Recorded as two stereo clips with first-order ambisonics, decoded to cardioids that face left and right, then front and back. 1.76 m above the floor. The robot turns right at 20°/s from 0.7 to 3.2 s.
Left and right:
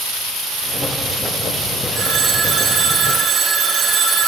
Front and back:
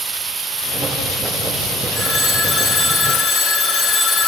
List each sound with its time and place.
1.9 s a phone ringing: 65° right, 1.3 m; by 4.3 s 40° right, 1.3 m